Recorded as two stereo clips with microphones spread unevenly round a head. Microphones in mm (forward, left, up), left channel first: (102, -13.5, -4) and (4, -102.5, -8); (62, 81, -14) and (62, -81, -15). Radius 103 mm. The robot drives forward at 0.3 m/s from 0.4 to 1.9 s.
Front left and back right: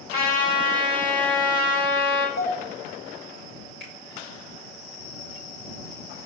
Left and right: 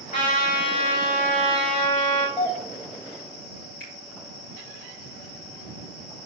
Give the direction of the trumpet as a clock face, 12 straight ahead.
7 o'clock.